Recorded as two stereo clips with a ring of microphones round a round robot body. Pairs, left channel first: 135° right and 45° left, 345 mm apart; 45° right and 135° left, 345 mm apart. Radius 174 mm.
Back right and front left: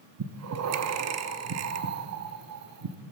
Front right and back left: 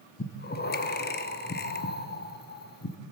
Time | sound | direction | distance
0.2 | breathing | 10° left | 0.9 m